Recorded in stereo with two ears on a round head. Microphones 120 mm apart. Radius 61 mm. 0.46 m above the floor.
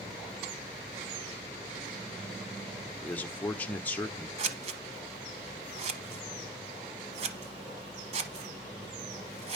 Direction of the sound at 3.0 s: 10° left (ahead or behind).